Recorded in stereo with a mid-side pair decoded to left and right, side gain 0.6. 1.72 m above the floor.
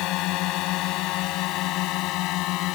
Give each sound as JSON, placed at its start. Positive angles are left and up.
{"t": 0.0, "sound": "a drone", "azimuth_deg": 70}